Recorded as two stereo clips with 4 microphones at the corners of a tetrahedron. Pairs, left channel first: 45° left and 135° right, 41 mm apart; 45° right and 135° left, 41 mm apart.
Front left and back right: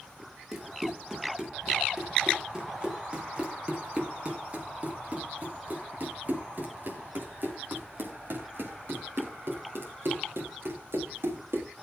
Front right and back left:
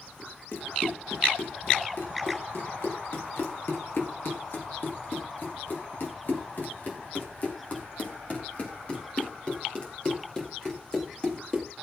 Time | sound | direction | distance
0.5 | running footsteps | 55° right | 5 m